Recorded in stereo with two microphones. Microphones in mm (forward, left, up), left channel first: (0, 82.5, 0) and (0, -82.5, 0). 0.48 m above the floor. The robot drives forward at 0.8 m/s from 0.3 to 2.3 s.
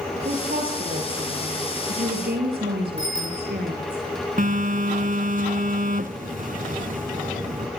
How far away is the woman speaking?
About 9.5 m.